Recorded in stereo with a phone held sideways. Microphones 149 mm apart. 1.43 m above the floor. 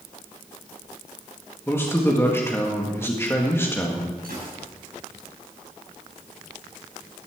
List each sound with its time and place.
1.7 s a man speaking: 15° left (ahead or behind), 1.7 m
4.2 s a gunshot: 80° right, 6 m